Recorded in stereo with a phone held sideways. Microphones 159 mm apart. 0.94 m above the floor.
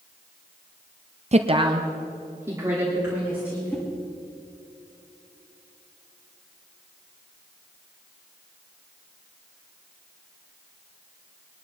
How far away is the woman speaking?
About 0.5 m.